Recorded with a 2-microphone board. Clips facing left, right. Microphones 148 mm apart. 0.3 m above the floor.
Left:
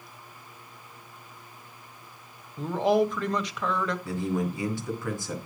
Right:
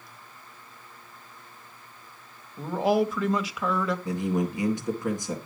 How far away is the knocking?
I don't hear knocking.